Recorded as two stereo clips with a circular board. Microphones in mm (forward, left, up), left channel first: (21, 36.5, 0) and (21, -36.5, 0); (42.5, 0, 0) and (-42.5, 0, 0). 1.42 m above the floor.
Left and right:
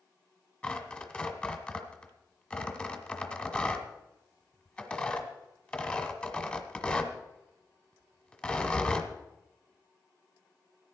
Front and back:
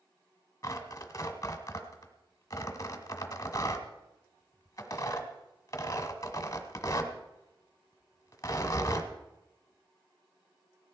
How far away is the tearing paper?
About 1.4 m.